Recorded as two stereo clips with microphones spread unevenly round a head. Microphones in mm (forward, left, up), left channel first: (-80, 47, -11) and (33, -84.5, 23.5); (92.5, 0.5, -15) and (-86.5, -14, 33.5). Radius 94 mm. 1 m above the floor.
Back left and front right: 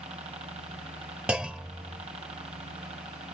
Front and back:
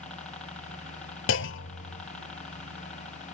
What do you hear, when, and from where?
0.0 s a helicopter: 25° right
1.3 s a clunk: 25° left